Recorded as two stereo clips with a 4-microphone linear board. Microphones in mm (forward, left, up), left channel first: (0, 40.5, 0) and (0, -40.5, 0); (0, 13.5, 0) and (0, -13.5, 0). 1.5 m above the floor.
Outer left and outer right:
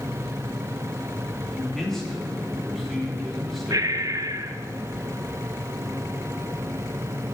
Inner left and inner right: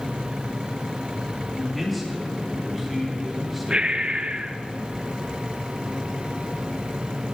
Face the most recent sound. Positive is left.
turn(degrees=-45)  # may be behind; listen again after turning